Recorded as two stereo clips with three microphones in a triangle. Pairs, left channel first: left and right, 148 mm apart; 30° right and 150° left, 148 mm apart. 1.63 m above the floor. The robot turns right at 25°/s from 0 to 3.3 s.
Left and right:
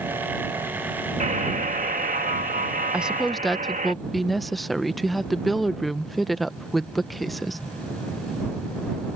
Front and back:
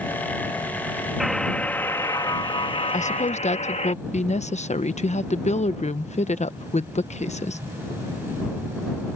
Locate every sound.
1.2 s a buzzer: 120° right; by 3.9 s 65° right
2.9 s a woman speaking: 10° right; by 7.6 s straight ahead